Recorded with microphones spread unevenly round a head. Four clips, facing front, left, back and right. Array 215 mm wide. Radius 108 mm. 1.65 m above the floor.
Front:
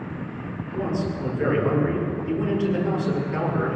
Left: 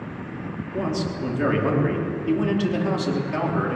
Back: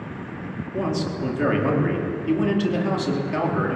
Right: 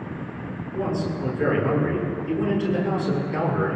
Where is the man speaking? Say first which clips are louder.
Even, back 1 dB; 140° left, 4.5 m.